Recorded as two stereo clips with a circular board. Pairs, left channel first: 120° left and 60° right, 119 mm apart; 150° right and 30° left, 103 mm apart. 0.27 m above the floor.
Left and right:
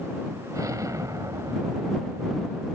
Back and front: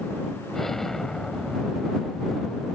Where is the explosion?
65° right.